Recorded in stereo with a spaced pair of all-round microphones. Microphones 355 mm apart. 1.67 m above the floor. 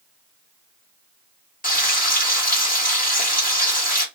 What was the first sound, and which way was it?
Frying, 25° left (ahead or behind).